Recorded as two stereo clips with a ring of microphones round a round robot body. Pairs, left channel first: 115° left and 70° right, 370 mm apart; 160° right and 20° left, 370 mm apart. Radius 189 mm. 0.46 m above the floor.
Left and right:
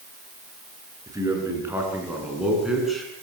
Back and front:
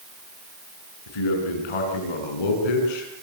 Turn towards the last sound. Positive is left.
turn(degrees=-160)